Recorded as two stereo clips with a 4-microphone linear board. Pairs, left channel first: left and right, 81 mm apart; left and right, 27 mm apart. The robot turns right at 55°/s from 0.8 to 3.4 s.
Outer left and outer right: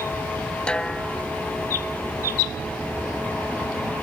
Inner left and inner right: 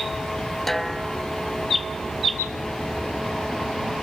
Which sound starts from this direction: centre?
A snare drum, at 0.7 s.